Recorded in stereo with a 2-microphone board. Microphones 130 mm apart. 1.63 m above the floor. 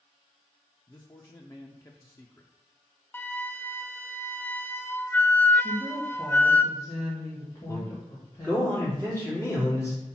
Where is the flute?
15° left (ahead or behind), 0.5 m.